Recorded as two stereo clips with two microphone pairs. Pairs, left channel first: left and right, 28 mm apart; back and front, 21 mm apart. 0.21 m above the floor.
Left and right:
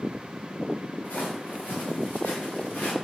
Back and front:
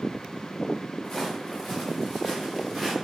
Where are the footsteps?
110° left, 1.6 m; by 2.9 s 75° left, 1.8 m.